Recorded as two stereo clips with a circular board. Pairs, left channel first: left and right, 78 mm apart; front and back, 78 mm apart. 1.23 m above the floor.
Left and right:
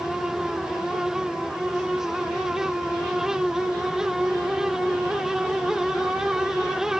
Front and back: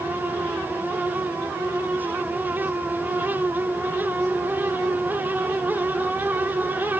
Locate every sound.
Only background noise.